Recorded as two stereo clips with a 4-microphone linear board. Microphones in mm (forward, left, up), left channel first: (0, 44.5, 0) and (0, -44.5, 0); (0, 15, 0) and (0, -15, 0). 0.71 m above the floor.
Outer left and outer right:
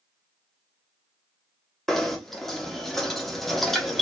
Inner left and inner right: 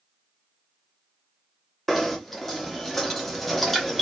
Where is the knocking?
5° left (ahead or behind), 0.8 m.